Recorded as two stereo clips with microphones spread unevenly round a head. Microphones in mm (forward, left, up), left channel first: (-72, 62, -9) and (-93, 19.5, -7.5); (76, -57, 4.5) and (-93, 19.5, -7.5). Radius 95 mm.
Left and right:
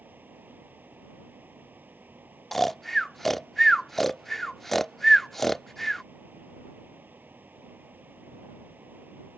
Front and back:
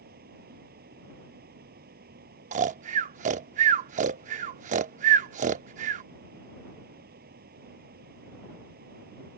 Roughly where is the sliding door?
I don't hear a sliding door.